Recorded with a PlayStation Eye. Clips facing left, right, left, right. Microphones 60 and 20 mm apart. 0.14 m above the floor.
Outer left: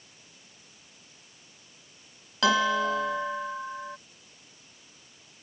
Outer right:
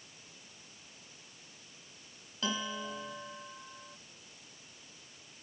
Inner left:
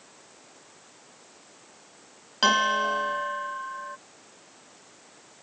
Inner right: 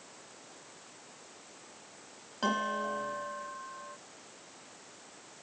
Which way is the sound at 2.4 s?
75° left (ahead or behind).